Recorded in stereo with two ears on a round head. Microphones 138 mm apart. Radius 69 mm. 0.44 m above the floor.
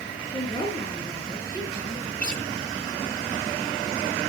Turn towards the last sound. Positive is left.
turn(degrees=10)  # may be behind; listen again after turning